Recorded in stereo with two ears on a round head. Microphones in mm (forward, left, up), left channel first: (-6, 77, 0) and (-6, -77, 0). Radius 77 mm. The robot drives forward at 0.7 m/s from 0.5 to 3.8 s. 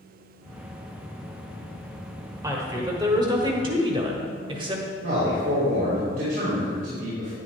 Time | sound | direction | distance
2.4 | a woman speaking | 20° right (ahead or behind) | 1.8 m
5.0 | a man speaking | 60° right (ahead or behind) | 3 m